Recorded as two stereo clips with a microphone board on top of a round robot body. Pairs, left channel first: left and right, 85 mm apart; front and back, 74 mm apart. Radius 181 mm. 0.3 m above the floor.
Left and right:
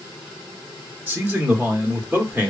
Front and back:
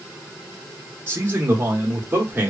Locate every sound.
1.1 s a man speaking: 145° right, 1.2 m